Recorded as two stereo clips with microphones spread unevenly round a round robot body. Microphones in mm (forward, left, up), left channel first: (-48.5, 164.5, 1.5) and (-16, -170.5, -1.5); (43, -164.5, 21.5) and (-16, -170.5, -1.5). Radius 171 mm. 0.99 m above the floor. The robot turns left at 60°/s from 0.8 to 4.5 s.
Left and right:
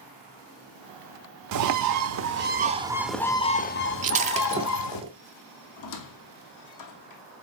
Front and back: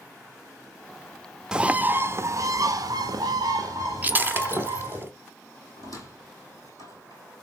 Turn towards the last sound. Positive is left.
turn(degrees=125)